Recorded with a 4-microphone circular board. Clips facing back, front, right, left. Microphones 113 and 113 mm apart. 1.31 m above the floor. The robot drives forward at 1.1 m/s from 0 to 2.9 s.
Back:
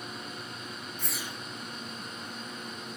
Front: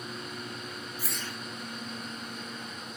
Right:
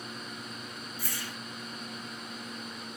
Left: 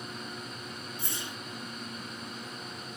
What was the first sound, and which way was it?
A whoosh, 65° left.